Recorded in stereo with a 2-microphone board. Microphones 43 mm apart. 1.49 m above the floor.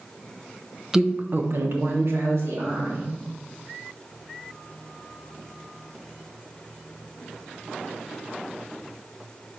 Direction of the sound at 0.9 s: 10° right (ahead or behind).